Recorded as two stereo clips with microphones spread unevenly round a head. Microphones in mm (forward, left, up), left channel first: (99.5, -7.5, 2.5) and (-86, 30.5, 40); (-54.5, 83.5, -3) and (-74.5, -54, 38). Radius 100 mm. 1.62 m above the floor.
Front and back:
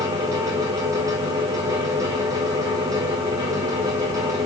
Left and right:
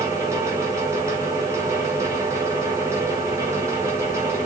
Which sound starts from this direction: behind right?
A fan, at 0.0 s.